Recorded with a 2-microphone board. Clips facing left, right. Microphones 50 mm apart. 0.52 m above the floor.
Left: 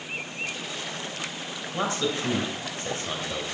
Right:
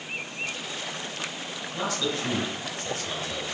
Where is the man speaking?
35° left (ahead or behind), 2.5 m.